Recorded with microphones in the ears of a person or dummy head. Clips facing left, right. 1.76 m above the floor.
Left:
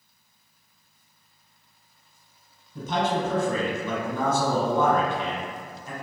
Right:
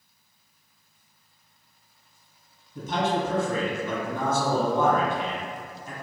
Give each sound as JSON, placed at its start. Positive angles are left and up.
{"t": 2.8, "sound": "a man speaking", "side_deg": 75, "distance_m": 1.5}